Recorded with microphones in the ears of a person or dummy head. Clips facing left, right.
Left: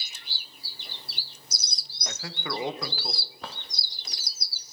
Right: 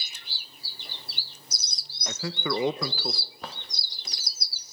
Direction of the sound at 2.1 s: 85° right.